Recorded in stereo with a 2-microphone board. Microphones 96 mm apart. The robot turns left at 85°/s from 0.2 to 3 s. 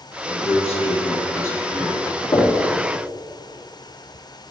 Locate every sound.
0.3 s a man speaking: 130° left, 1.8 m; by 2.0 s 20° right, 1.8 m
2.3 s knocking: 45° left (ahead or behind), 1.8 m; by 2.5 s 25° left (ahead or behind), 1.8 m